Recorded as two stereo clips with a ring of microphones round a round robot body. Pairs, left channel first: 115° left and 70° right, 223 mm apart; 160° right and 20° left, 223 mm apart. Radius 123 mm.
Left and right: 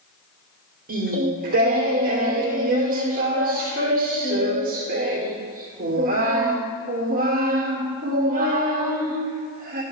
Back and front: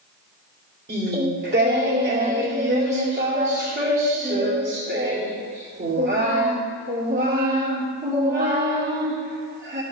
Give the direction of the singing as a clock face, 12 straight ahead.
1 o'clock.